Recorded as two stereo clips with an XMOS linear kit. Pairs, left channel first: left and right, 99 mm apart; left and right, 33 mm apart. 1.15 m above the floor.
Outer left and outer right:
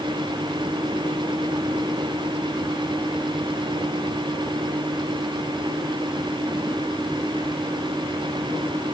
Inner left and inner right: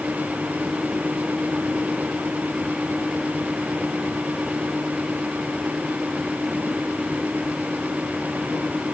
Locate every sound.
Only background noise.